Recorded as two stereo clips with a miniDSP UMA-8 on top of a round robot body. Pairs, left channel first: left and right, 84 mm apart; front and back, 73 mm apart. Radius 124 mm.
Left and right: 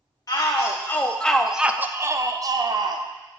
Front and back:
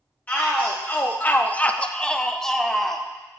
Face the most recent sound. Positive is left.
turn(degrees=-90)